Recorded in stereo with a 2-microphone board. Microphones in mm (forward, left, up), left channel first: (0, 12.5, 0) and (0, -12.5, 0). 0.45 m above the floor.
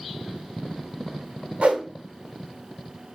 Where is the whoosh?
55° right (ahead or behind), 0.7 m.